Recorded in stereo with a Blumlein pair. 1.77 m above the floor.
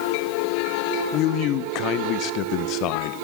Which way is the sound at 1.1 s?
40° left.